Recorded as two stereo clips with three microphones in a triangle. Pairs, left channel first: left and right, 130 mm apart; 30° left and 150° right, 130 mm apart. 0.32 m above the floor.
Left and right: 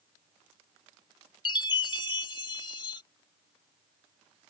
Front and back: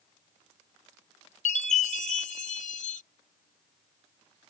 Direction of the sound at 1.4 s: 40° left.